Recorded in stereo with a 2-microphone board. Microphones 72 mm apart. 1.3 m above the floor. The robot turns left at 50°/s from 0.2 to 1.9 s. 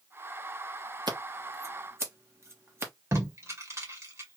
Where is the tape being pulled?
40° right (ahead or behind), 1.9 m.